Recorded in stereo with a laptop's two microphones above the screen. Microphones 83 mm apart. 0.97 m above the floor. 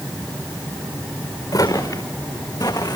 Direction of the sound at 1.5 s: 50° left (ahead or behind).